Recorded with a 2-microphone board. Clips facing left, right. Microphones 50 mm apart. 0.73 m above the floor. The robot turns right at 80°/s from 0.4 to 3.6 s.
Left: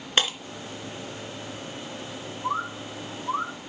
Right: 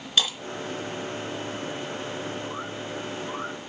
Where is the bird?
65° left (ahead or behind), 2 m; by 3.5 s 30° left (ahead or behind), 2 m.